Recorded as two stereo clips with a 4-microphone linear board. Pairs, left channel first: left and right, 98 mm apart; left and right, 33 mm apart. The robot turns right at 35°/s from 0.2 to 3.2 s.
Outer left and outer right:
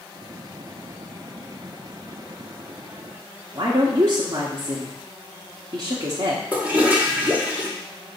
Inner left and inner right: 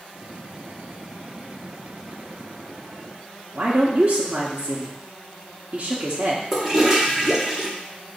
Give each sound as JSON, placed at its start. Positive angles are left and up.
{"t": 3.5, "sound": "a woman speaking", "side_deg": -40, "distance_m": 1.1}
{"t": 6.5, "sound": "a toilet flushing", "side_deg": -15, "distance_m": 1.2}